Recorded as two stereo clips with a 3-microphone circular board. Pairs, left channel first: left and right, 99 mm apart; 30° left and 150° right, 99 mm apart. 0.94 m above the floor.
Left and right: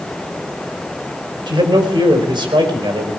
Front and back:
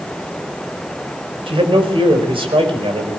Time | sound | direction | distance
1.5 | a man speaking | 130° right | 4.5 m